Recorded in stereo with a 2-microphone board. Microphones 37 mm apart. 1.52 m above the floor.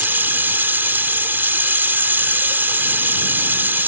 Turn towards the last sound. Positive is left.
turn(degrees=-75)  # may be behind; listen again after turning